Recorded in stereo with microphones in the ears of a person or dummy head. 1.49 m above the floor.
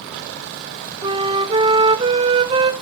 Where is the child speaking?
I don't hear a child speaking.